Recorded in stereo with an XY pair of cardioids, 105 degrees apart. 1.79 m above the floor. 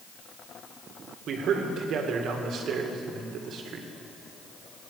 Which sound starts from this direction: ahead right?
A man speaking, at 1.3 s.